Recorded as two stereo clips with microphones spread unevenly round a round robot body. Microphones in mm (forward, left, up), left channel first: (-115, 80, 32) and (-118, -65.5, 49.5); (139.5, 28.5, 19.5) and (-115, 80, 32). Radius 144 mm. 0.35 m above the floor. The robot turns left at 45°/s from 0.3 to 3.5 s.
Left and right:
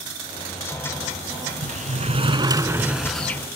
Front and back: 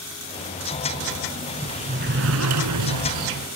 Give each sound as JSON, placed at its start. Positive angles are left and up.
{"t": 1.6, "sound": "a sliding door", "azimuth_deg": -115}